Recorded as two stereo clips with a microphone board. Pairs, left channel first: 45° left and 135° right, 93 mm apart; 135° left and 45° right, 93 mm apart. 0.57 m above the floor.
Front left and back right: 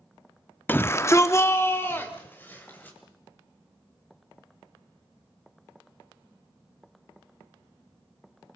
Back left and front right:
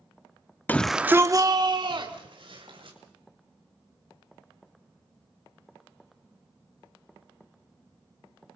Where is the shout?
90° left, 0.7 m; by 3.0 s 25° right, 2.5 m.